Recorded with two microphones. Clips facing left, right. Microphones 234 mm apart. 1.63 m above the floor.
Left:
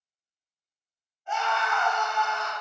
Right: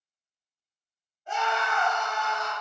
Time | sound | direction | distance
1.3 | a scream | 40° right (ahead or behind) | 1.8 m